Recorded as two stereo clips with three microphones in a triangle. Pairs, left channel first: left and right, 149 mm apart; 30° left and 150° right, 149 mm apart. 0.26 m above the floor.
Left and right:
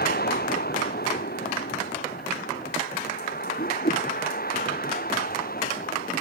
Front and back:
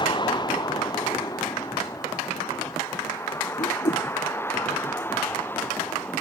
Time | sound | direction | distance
0.0 | a vehicle | 90° left | ?
3.6 | a whoosh | 75° left | ?